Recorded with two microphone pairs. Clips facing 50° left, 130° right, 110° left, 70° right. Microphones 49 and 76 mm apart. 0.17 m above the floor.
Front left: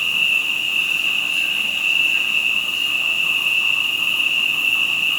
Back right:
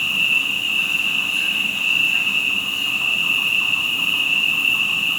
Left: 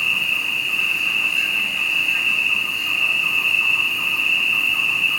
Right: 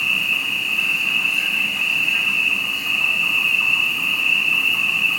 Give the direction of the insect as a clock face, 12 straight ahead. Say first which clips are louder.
Even, even; 2 o'clock.